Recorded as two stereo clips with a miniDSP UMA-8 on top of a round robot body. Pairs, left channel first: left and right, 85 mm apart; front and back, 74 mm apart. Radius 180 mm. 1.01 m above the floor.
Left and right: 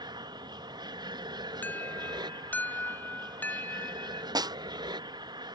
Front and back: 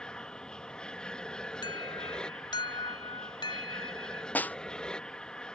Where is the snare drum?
65° right.